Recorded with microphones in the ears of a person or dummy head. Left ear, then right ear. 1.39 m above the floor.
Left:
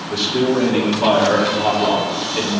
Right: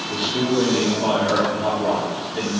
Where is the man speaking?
70° left (ahead or behind), 2 m; by 2.5 s 20° left (ahead or behind), 2 m.